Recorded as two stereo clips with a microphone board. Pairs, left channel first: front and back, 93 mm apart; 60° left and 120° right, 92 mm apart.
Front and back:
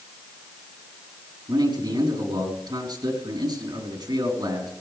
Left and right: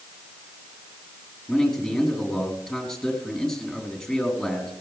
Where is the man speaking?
140° left, 5 m.